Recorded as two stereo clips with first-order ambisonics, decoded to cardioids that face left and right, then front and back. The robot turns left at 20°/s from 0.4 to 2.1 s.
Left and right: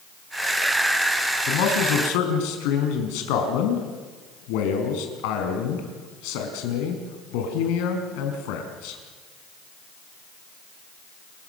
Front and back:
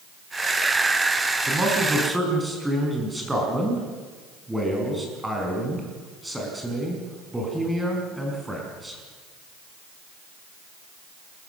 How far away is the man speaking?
About 5 m.